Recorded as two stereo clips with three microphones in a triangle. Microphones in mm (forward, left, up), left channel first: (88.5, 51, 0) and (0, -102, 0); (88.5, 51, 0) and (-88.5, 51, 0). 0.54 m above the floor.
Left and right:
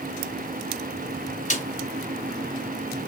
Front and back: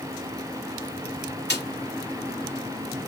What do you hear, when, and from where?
1.5 s a snare drum: 15° left, 3 m